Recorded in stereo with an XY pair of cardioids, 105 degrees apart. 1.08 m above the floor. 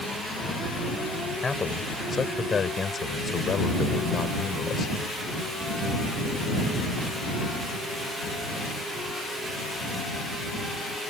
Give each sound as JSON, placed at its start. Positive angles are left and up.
{"t": 1.4, "sound": "a man speaking", "azimuth_deg": 25}